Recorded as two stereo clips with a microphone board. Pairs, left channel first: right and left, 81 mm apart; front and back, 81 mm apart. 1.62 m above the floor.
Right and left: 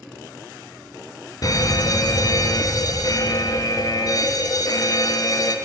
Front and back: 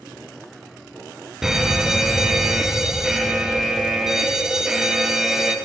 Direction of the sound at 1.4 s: 95° right.